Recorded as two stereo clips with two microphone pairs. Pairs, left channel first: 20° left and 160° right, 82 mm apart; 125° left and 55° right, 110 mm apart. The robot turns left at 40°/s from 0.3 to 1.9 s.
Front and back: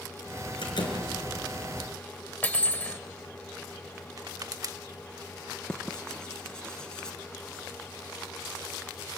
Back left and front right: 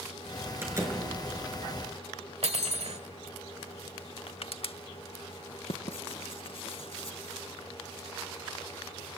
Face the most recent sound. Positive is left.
turn(degrees=100)